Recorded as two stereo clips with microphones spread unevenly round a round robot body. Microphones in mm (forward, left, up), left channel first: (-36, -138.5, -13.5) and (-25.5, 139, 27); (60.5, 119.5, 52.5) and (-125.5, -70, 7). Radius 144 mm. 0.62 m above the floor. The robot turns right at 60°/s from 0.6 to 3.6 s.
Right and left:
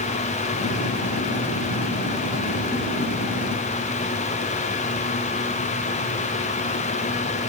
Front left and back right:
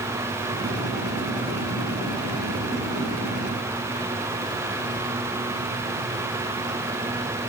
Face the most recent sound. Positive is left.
No sound to turn to.